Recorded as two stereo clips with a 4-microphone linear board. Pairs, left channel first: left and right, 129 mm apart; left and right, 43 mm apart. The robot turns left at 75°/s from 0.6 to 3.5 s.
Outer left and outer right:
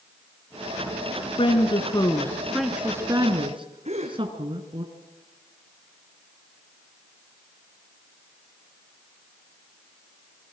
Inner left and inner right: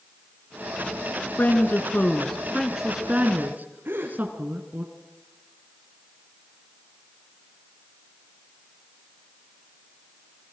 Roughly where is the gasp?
Right.